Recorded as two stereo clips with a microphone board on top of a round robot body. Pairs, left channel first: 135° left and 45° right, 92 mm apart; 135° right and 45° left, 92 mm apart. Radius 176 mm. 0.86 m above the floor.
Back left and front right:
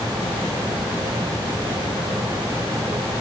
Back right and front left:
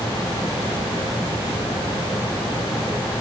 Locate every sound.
Only background noise.